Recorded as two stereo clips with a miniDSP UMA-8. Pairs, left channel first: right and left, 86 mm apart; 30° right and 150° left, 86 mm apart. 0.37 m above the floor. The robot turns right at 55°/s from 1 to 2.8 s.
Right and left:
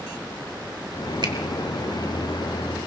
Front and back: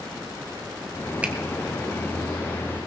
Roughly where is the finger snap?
Left.